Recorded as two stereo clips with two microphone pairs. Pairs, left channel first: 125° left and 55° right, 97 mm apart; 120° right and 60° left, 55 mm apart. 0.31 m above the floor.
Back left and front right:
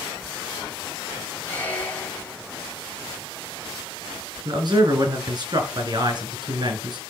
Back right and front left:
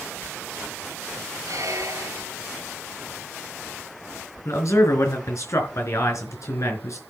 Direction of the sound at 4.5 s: 95° right.